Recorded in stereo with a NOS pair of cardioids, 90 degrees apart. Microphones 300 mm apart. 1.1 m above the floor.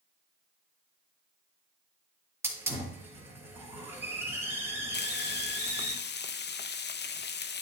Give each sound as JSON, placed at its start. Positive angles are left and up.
{"t": 2.4, "sound": "a hiss", "azimuth_deg": -10, "distance_m": 3.5}
{"t": 4.9, "sound": "frying", "azimuth_deg": 35, "distance_m": 0.7}